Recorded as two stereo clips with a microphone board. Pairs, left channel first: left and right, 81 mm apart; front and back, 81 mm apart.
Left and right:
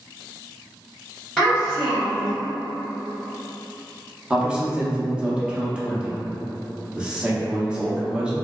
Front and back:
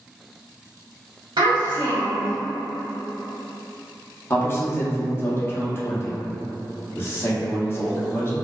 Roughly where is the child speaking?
Behind.